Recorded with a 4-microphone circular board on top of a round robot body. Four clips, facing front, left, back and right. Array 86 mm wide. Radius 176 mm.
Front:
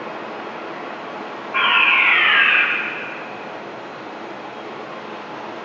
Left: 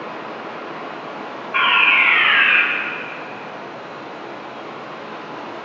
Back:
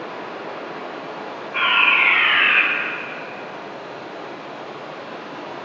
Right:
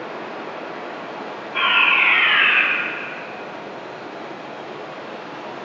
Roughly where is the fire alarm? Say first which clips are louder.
Left 2 dB, front 1 dB; left.